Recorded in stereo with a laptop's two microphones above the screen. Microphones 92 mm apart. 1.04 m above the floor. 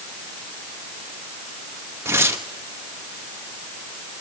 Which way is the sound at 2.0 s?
30° right (ahead or behind).